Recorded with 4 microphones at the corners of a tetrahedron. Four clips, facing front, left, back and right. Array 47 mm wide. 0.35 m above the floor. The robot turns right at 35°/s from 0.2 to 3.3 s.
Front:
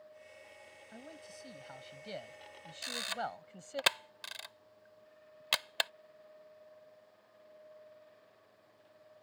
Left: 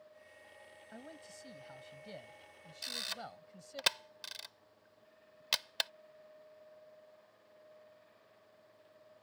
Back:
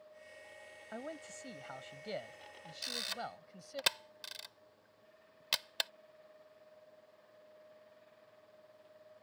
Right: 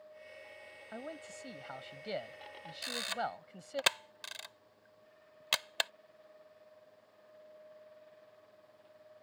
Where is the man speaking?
145° right; by 3.8 s 60° right.